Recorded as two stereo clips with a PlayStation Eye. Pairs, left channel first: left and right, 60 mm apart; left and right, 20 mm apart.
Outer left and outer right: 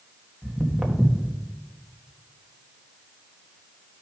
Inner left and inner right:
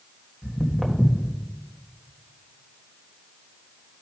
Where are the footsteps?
Centre (ahead or behind), 1.8 m.